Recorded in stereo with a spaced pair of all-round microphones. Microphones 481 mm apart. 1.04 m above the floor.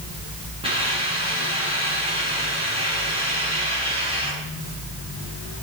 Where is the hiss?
10° right (ahead or behind), 7 m.